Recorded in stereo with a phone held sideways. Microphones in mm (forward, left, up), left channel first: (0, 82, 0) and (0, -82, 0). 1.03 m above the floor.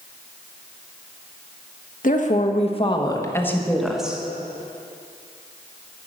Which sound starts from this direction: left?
A woman speaking, at 2.0 s.